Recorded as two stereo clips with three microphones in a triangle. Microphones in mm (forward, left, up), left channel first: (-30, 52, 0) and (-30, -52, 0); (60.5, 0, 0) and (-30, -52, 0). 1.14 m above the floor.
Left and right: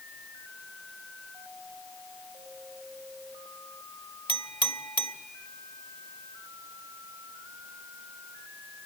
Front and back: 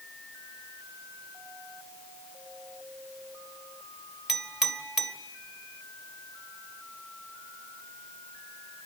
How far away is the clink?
About 1.5 m.